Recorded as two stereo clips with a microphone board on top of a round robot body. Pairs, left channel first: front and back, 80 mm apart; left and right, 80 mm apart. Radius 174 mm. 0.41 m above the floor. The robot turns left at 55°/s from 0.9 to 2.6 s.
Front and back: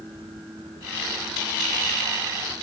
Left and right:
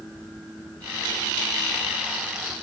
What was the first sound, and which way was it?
Only background noise.